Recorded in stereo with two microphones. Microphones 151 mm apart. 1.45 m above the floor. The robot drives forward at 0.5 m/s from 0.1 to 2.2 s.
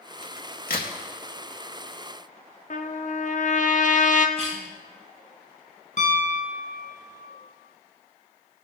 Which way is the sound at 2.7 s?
55° left (ahead or behind).